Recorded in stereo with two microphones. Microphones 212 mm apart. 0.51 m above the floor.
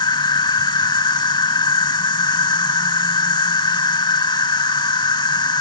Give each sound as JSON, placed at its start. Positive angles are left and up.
{"t": 0.0, "sound": "an insect", "side_deg": 20}